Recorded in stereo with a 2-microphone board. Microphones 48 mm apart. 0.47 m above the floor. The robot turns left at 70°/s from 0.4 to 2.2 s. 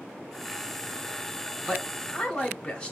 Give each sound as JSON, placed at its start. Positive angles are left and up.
{"t": 1.7, "sound": "a man speaking", "side_deg": 10, "distance_m": 1.4}